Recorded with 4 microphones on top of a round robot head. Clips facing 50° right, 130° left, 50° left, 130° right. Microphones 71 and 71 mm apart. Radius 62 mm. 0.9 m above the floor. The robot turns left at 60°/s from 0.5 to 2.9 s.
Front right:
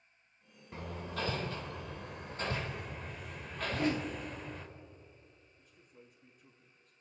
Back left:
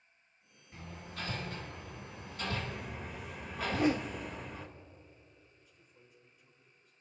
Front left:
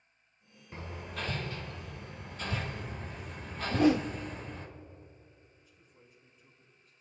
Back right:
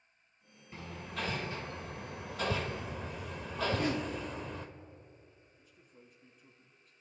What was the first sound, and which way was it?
Hammering, 10° right.